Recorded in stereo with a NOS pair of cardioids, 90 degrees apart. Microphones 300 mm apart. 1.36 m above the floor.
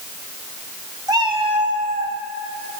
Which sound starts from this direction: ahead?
A cat meowing, at 1.1 s.